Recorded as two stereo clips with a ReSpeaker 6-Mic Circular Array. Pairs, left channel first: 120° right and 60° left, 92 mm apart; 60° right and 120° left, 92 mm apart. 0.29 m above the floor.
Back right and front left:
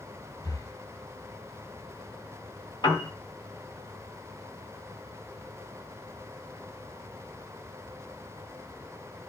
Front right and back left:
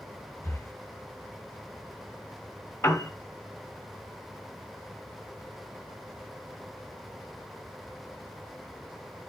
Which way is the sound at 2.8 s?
105° right.